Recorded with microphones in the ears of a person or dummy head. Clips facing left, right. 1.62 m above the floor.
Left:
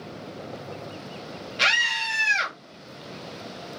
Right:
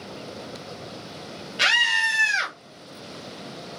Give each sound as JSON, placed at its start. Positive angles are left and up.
{"t": 1.6, "sound": "a scream", "side_deg": -10, "distance_m": 2.0}